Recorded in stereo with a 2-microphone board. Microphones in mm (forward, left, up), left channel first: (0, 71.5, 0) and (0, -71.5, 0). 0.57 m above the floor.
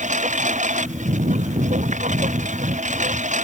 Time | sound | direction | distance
0.0 | a lawn mower | 55° right (ahead or behind) | ?